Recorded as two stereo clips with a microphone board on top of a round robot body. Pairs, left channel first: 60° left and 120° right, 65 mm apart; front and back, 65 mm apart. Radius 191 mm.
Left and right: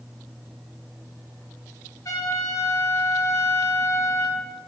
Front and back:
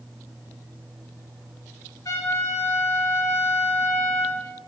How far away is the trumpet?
About 1.3 m.